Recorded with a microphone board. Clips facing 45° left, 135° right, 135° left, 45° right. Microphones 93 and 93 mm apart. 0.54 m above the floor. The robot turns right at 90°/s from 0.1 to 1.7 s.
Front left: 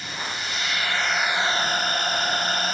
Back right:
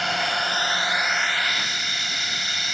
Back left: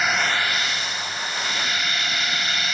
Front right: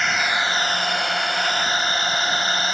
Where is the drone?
140° right; by 2.7 s 5° left.